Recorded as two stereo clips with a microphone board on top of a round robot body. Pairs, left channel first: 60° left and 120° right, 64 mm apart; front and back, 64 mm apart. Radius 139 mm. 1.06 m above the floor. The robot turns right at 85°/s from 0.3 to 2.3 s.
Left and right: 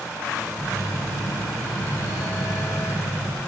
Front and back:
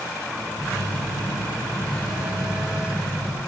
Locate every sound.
0.6 s a phone buzzing: 40° right, 8 m; by 3.4 s 105° left, 8 m